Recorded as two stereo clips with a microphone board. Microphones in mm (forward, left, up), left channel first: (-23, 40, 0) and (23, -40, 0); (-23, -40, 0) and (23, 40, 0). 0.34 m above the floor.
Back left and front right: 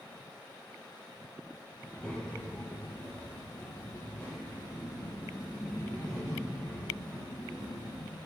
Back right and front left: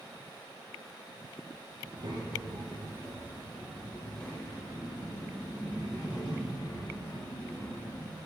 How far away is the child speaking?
About 1.6 m.